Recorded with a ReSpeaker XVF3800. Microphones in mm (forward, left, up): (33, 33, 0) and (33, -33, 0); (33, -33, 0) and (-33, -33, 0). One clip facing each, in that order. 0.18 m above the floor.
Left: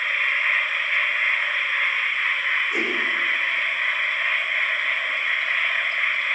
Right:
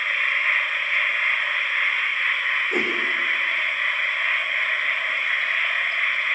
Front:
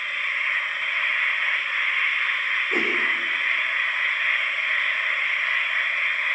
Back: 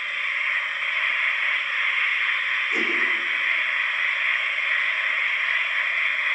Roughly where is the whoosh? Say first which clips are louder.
Right 1 dB, front 2 dB; ahead right.